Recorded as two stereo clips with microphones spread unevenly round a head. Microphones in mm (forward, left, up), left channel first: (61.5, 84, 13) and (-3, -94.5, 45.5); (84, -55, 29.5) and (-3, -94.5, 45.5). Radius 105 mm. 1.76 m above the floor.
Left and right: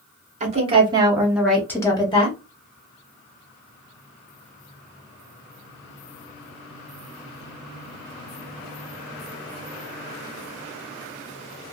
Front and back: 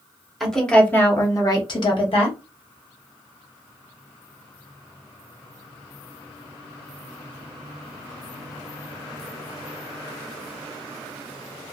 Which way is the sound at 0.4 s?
70° right.